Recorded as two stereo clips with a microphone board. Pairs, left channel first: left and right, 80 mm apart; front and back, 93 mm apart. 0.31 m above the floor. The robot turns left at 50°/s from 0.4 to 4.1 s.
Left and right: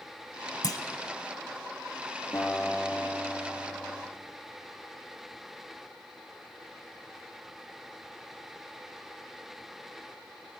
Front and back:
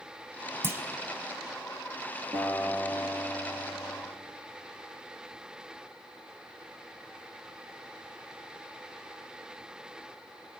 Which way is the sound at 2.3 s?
145° left.